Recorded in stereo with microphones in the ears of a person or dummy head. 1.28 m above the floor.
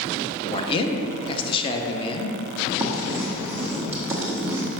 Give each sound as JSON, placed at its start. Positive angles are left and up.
{"t": 0.5, "sound": "a man speaking", "side_deg": 30, "distance_m": 0.9}
{"t": 2.8, "sound": "writing", "side_deg": -15, "distance_m": 1.3}